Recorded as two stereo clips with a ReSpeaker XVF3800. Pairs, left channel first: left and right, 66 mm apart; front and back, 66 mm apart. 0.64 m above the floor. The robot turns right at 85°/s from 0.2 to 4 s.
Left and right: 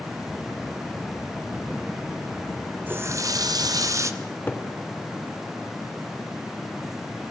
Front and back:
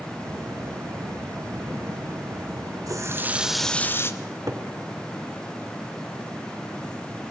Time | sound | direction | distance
2.9 | a running tap | 150° right | 1.5 m
4.2 | a cupboard door | 145° left | 2.5 m